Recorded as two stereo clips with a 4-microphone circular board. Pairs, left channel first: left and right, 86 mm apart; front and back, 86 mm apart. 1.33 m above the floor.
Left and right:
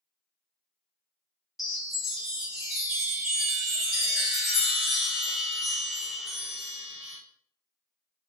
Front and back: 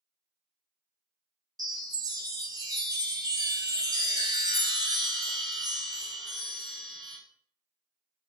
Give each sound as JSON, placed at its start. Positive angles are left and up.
{"t": 1.6, "sound": "a chime", "azimuth_deg": -175, "distance_m": 0.7}